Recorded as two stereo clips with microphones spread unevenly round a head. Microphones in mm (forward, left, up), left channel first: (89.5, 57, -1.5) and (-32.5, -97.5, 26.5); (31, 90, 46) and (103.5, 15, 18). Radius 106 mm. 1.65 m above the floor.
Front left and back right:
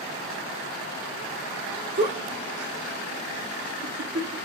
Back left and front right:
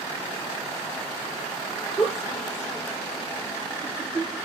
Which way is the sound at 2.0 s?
145° right.